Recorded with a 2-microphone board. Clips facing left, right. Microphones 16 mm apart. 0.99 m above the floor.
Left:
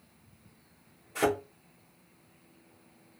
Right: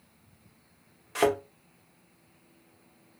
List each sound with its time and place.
1.1 s a thud: 65° right (ahead or behind), 1.5 m